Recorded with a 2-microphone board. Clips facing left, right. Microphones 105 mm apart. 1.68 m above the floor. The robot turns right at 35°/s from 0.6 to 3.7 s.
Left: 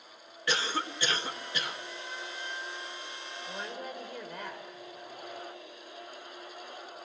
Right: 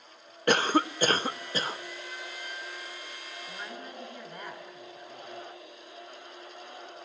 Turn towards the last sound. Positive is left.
turn(degrees=75)  # may be behind; listen again after turning